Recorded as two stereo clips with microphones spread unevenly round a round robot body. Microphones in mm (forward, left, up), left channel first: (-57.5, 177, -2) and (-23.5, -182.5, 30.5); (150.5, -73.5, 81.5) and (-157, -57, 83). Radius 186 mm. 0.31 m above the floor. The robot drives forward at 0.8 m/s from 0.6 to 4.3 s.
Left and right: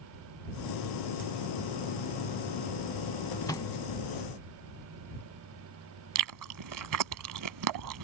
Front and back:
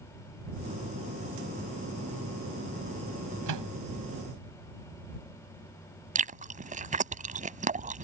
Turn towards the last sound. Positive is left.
turn(degrees=-120)